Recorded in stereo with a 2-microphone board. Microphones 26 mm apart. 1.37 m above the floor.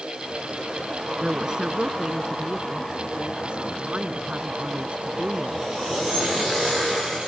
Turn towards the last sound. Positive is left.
turn(degrees=-50)  # may be behind; listen again after turning